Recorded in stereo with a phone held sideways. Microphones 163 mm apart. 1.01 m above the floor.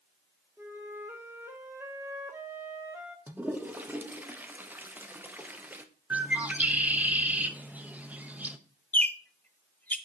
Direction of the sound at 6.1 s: 10° right (ahead or behind).